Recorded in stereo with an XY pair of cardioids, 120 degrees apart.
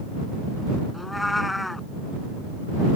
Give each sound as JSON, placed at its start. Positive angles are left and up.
{"t": 0.9, "sound": "a cat meowing", "azimuth_deg": 10}